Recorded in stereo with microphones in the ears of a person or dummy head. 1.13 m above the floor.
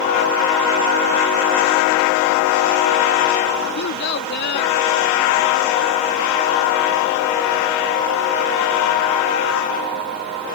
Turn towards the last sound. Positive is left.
turn(degrees=60)  # may be behind; listen again after turning